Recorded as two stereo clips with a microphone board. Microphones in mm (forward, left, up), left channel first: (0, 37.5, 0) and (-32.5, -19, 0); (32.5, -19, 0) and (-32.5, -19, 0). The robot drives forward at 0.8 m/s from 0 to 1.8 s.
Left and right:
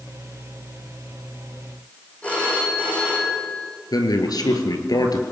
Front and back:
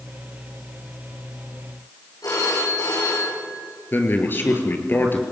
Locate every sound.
2.2 s a phone ringing: 10° right, 10 m
3.9 s a man speaking: 55° left, 3.5 m